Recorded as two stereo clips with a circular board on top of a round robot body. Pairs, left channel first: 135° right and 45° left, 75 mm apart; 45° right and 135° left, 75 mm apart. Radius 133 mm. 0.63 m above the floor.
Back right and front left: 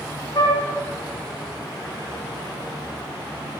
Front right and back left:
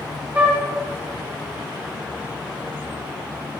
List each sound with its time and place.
0.3 s a flute: 155° right, 1.8 m